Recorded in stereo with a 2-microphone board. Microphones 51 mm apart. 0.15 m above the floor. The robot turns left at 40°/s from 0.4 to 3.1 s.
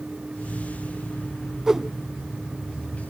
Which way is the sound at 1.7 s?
10° right (ahead or behind).